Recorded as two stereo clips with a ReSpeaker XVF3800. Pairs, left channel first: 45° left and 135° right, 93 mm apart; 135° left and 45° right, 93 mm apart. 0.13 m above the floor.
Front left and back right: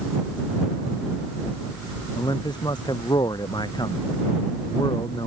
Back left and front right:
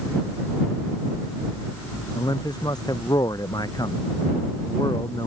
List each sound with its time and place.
2.1 s a man speaking: 90° left